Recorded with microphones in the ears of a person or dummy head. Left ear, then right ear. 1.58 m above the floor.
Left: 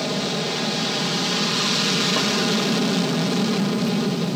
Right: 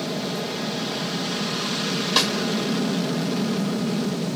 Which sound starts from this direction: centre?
An aircraft, at 0.0 s.